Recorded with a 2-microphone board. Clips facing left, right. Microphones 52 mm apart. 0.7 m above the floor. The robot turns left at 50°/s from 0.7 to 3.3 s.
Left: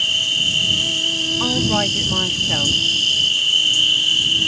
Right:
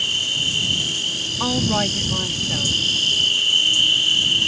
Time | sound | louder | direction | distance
0.0 | an insect | left 3 dB | 140° left | ?
1.4 | a woman speaking | even | 170° right | ?